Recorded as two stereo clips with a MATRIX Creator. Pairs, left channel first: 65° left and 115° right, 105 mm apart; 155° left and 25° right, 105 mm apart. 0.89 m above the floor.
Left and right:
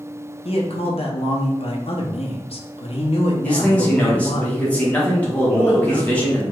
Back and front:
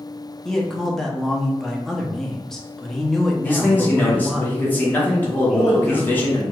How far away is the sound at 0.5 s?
About 0.6 m.